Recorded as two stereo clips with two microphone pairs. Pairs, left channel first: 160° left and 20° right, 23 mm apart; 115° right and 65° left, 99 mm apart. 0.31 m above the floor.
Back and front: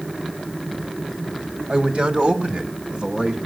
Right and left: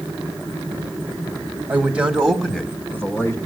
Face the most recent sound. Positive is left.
turn(degrees=-55)